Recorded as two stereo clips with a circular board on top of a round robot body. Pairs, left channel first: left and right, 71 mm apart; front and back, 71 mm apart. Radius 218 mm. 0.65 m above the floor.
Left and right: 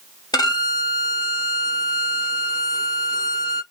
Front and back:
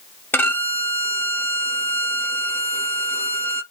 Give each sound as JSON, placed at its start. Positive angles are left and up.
{"t": 0.3, "sound": "a violin", "azimuth_deg": 65, "distance_m": 1.1}